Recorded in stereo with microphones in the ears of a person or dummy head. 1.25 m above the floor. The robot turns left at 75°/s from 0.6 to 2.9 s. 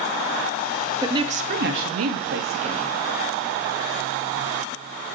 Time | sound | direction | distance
1.0 | a woman speaking | 20° right | 1.6 m